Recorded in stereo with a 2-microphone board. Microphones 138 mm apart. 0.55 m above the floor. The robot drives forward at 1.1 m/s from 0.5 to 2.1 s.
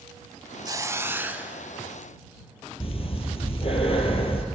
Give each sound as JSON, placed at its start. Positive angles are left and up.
{"t": 0.7, "sound": "a hiss", "side_deg": -30, "distance_m": 0.6}
{"t": 2.8, "sound": "breathing", "side_deg": 45, "distance_m": 2.0}